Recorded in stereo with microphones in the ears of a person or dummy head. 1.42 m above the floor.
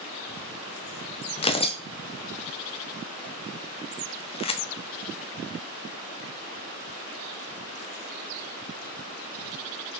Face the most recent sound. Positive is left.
turn(degrees=25)  # may be behind; listen again after turning